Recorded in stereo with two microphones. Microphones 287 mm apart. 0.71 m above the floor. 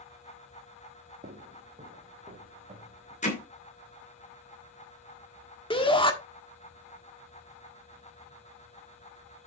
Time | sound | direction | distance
1.2 | footsteps | 30° right (ahead or behind) | 1.6 m
3.2 | hammering | 25° left (ahead or behind) | 2.5 m
5.7 | a shout | 20° left (ahead or behind) | 1.4 m